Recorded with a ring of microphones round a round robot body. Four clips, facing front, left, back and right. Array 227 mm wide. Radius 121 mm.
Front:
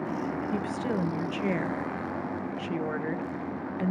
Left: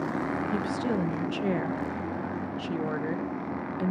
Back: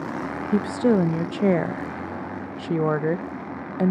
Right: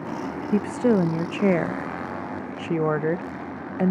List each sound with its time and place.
0.5 s a woman speaking: 140° right, 0.5 m